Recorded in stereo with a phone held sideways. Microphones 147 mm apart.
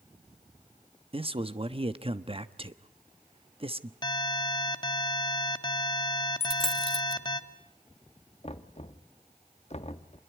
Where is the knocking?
45° left (ahead or behind), 1.2 m.